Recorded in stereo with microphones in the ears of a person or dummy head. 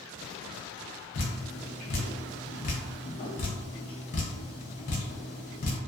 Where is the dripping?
40° left (ahead or behind), 0.5 m.